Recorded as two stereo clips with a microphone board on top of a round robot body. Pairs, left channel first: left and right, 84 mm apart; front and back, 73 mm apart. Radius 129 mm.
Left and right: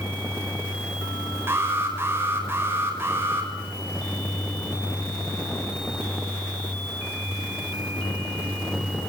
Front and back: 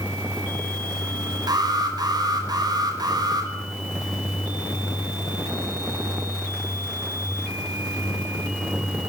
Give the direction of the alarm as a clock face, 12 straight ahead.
5 o'clock.